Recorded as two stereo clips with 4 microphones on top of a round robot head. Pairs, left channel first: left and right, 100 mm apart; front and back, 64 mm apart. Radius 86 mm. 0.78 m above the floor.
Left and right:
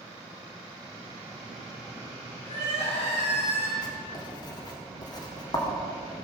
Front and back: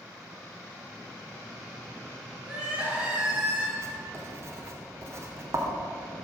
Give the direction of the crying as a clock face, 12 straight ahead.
9 o'clock.